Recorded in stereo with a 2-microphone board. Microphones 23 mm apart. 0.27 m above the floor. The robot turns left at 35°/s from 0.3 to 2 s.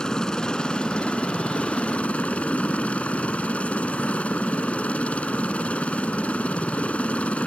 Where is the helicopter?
145° left; by 7.5 s 85° left.